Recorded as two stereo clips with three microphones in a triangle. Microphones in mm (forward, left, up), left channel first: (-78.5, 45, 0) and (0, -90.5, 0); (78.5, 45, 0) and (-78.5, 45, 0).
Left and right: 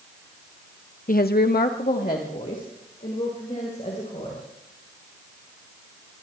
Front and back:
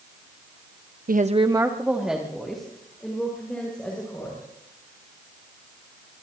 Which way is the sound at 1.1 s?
155° left.